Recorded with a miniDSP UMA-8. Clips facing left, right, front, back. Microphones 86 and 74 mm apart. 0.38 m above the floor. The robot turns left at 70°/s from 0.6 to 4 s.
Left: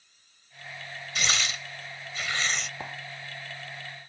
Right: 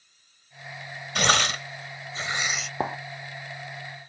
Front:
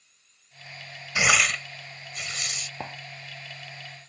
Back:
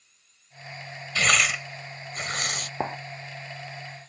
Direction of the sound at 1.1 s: 70° right.